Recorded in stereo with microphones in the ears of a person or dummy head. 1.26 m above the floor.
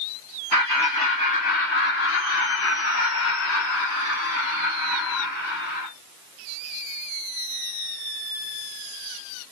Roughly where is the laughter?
Centre.